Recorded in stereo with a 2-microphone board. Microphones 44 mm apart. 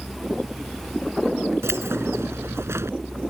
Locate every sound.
1.6 s keys jangling: 80° right